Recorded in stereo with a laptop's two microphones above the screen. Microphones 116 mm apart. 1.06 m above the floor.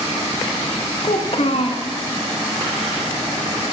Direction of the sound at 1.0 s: 55° left (ahead or behind).